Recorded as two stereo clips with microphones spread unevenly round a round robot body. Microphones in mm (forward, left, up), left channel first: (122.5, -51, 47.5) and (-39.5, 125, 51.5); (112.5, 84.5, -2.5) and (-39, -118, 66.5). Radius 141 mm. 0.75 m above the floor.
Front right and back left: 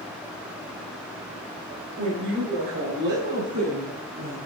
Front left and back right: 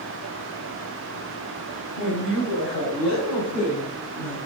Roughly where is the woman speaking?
Left.